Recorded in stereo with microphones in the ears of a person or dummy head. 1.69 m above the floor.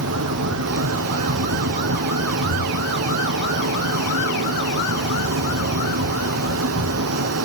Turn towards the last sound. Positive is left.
turn(degrees=-85)